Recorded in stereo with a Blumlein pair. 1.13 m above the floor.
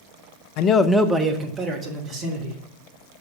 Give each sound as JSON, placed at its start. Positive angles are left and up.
{"t": 0.6, "sound": "a man speaking", "azimuth_deg": 45, "distance_m": 0.5}